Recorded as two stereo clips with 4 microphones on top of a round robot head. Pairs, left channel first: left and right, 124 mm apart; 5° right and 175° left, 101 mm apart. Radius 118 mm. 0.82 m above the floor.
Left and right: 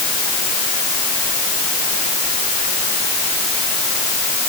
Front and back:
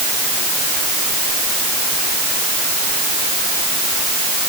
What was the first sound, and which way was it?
Only background noise.